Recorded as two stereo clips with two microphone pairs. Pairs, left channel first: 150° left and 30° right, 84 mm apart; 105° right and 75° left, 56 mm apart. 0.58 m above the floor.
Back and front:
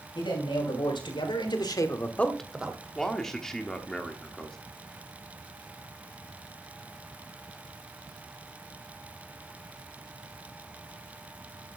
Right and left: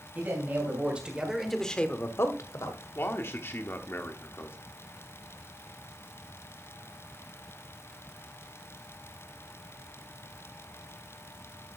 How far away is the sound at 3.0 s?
About 1.2 m.